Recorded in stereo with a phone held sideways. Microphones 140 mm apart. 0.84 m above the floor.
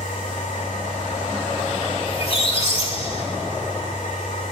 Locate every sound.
0.0 s a machine running: 70° left (ahead or behind), 1.7 m
2.1 s a squeak: 50° left (ahead or behind), 2.5 m